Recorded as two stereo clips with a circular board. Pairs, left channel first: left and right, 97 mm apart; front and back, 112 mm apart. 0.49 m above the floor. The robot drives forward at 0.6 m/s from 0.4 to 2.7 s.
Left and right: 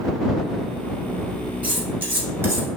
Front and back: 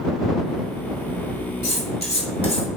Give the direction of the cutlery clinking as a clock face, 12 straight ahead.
1 o'clock.